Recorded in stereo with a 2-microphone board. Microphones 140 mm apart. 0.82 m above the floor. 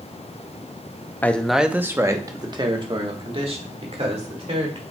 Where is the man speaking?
15° left (ahead or behind), 0.6 m; by 4.8 s 50° right (ahead or behind), 2.5 m.